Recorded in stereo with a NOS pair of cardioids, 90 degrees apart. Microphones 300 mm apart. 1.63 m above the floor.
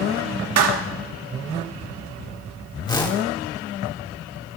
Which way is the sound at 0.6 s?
60° right.